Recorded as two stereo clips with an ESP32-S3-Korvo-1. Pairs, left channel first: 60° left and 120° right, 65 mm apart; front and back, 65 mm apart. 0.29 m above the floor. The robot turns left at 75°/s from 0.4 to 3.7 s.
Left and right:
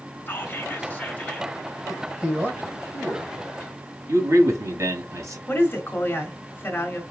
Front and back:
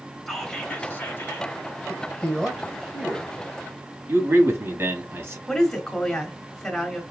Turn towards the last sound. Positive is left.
turn(degrees=75)